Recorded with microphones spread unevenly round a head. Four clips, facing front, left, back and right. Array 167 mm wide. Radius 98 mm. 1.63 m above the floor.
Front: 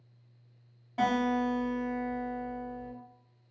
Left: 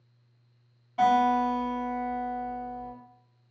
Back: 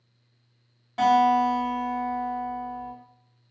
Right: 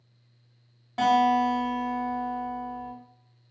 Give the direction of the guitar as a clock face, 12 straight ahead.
3 o'clock.